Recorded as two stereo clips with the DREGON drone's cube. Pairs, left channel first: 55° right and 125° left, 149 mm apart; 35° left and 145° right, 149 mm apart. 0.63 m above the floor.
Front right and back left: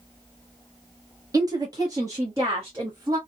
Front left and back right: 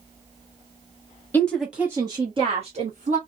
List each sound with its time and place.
1.3 s a woman speaking: 95° left, 1.0 m; by 3.2 s 165° right, 1.7 m